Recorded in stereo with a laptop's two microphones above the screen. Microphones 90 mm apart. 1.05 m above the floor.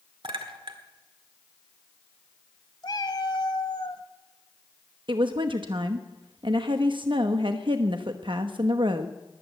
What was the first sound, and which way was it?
A clink, 75° right (ahead or behind).